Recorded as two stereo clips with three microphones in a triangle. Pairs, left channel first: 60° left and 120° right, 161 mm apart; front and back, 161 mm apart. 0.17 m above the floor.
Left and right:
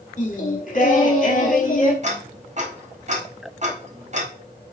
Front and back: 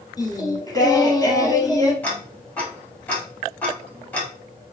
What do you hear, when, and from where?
0.2 s singing: 60° left, 1.0 m
2.0 s ticking: 80° right, 1.8 m